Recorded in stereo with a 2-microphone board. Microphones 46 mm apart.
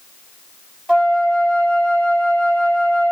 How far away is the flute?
About 2 m.